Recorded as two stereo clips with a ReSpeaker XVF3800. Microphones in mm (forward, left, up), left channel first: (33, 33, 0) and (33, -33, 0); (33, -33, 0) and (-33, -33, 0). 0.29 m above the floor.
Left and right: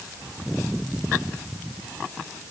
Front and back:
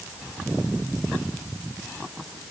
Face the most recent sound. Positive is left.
No sound to turn to.